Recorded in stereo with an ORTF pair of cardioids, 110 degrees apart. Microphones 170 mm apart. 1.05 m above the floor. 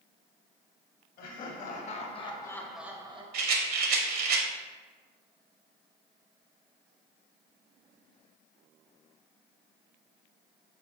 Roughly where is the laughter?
Ahead left.